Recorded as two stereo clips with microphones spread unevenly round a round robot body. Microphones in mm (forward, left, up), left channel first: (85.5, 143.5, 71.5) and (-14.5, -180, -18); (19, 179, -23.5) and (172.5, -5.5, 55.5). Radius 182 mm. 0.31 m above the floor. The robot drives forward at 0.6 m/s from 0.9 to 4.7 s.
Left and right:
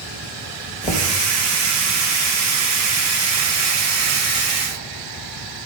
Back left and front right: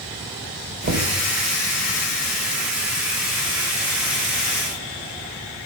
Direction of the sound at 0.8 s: 5° right.